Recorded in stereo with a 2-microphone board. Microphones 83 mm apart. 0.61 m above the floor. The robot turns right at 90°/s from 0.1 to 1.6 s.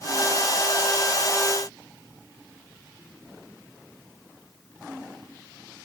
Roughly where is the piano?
No piano in this recording.